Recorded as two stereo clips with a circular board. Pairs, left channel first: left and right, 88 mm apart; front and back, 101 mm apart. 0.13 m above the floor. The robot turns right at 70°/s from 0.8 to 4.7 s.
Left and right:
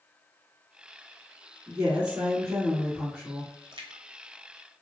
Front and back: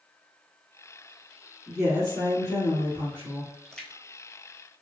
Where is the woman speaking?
110° right, 1.9 m; by 3.5 s 20° left, 1.9 m.